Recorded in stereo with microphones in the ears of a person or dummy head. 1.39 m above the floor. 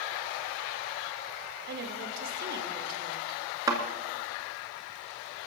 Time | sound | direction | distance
1.7 | a woman speaking | 60° right (ahead or behind) | 1.8 m
3.7 | a thud | 25° right (ahead or behind) | 2 m